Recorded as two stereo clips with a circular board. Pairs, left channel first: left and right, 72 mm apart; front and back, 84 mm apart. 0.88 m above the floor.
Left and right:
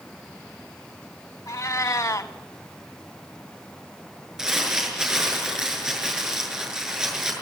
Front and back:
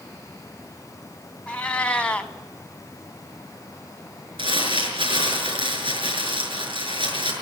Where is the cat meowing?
70° left, 1.2 m.